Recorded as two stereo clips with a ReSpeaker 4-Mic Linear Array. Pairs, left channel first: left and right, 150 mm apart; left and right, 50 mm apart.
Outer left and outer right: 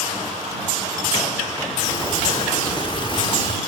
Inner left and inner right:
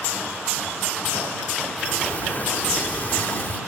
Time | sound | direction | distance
1.8 | a sliding door | 35° left (ahead or behind) | ?